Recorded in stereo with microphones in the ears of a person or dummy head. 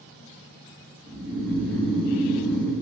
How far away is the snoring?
About 3 m.